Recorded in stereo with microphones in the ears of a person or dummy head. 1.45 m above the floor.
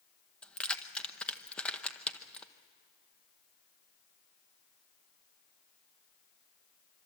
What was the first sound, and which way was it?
Keys jangling, 5° left (ahead or behind).